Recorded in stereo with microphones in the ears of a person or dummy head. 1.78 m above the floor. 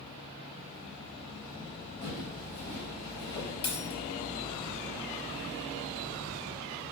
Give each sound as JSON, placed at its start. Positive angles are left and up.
{"t": 2.0, "sound": "footsteps", "side_deg": 45, "distance_m": 6.0}
{"t": 3.6, "sound": "a dropped coin", "side_deg": 30, "distance_m": 4.5}